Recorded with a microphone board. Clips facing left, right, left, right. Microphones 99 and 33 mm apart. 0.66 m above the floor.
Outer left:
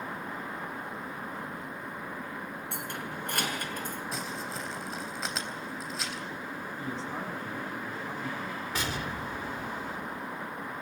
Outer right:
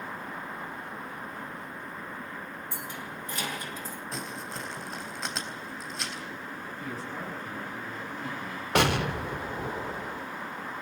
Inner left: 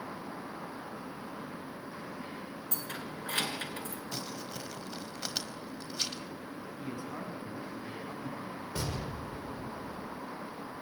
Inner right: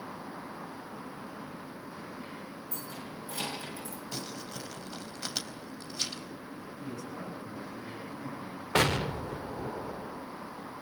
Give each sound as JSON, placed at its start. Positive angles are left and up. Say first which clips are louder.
{"t": 2.7, "sound": "keys jangling", "louder": "outer left 2 dB, inner left 3 dB", "side_deg": 70, "distance_m": 5.5}
{"t": 4.1, "sound": "crumpling", "louder": "outer left 1 dB, inner right 2 dB", "side_deg": 0, "distance_m": 3.5}
{"t": 6.8, "sound": "a man speaking", "louder": "outer left 1 dB, even", "side_deg": 30, "distance_m": 7.5}
{"t": 8.8, "sound": "an explosion", "louder": "outer right 11 dB, inner right 12 dB", "side_deg": -75, "distance_m": 1.2}